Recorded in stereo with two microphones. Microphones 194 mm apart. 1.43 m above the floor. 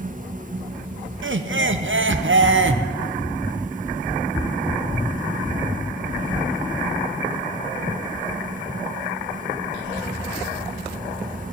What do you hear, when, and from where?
1.2 s laughter: 90° right, 0.7 m